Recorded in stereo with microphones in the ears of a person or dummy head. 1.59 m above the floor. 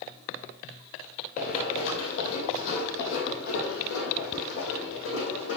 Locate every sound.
1.4 s running footsteps: 45° left (ahead or behind), 2.5 m; by 5.6 s 75° left (ahead or behind), 5 m